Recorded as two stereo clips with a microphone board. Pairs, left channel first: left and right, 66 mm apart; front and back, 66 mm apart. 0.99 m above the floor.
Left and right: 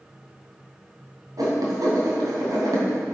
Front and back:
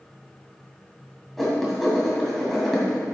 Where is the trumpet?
I don't hear a trumpet.